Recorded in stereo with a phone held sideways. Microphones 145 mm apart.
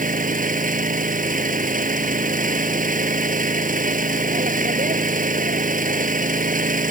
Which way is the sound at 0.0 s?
65° right (ahead or behind).